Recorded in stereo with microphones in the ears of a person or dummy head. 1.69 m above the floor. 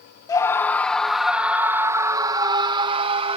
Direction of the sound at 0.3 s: 15° left (ahead or behind).